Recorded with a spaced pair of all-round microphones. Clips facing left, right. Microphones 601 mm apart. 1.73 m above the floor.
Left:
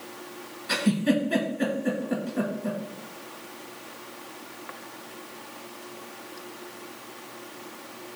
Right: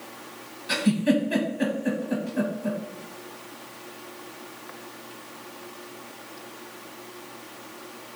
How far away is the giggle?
About 0.8 m.